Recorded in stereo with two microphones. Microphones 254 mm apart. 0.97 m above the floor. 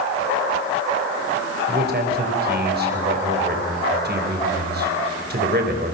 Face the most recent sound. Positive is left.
turn(degrees=-40)  # may be behind; listen again after turning